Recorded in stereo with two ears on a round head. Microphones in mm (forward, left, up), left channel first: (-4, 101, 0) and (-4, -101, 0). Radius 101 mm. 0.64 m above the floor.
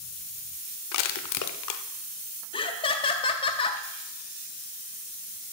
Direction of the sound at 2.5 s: 25° left (ahead or behind).